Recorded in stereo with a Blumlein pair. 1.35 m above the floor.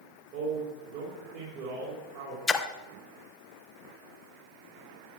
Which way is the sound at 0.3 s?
40° right.